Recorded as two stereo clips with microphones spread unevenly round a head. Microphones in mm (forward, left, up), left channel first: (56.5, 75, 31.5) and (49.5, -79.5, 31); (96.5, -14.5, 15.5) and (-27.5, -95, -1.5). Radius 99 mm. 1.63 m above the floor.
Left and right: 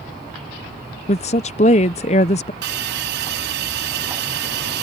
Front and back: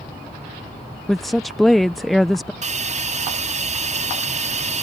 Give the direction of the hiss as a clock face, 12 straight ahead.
4 o'clock.